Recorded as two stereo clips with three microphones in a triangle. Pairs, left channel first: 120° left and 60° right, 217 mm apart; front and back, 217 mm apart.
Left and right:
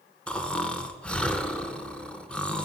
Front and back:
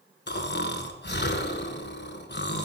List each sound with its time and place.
0.3 s snoring: 35° left, 0.8 m